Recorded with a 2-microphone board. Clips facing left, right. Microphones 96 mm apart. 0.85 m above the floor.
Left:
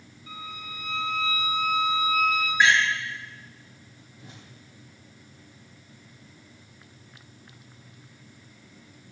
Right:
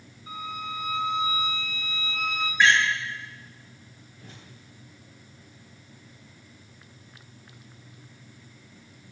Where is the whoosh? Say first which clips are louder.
Even; 10° left (ahead or behind), 8 m.